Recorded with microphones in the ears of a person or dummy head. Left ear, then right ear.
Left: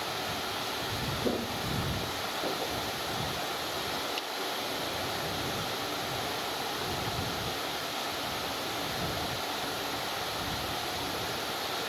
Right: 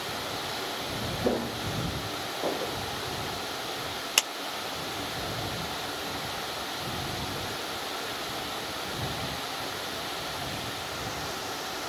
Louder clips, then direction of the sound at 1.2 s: Right 5 dB; 65° right (ahead or behind).